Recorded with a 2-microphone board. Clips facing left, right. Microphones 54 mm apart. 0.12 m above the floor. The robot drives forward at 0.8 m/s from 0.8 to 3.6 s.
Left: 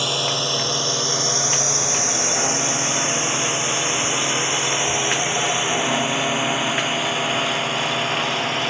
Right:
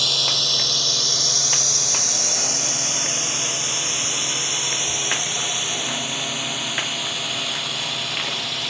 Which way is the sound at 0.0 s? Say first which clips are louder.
Left 3 dB; 25° left (ahead or behind).